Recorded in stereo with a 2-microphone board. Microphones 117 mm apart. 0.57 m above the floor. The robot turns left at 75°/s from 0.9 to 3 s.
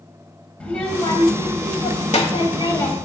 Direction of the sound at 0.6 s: 170° left.